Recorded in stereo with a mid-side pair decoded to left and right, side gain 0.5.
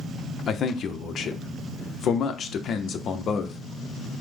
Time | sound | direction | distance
0.5 | a man speaking | 55° left | 0.8 m